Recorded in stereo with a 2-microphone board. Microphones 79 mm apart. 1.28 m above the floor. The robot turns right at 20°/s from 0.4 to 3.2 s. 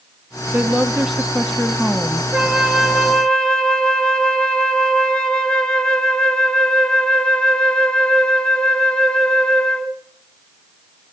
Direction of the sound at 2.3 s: 5° right (ahead or behind).